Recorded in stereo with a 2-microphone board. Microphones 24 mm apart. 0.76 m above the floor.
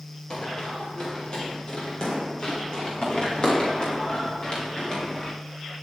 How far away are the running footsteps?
About 6 m.